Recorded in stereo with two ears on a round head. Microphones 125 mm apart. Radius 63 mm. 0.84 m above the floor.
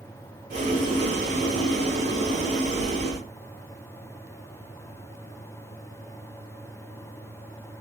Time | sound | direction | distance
0.5 | boiling | 50° right (ahead or behind) | 1.6 m